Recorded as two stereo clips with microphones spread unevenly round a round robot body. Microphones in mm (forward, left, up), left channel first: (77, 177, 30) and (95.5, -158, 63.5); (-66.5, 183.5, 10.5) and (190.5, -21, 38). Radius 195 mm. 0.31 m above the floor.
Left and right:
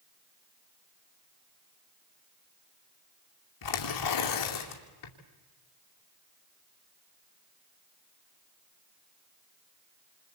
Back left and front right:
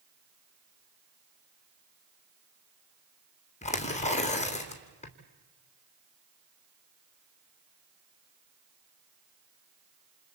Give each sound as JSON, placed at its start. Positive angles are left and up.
{"t": 3.6, "sound": "tearing paper", "azimuth_deg": 70, "distance_m": 2.5}